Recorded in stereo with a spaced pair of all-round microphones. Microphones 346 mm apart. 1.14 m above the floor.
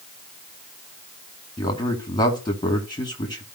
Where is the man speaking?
10° left (ahead or behind), 2 m.